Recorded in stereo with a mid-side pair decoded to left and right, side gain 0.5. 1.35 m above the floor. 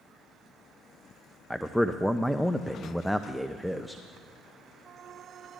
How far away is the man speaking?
About 0.5 m.